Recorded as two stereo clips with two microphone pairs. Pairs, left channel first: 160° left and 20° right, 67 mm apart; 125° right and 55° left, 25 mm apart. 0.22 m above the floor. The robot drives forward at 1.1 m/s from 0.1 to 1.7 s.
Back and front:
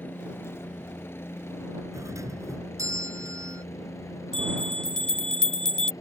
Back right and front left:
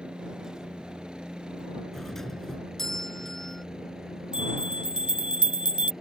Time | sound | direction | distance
0.0 | a helicopter | 105° left | ?
1.9 | a doorbell | 50° right | ?
4.3 | a bell | 85° left | ?